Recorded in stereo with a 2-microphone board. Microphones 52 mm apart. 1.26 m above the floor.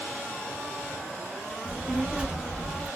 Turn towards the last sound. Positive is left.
turn(degrees=0)  # may be behind; listen again after turning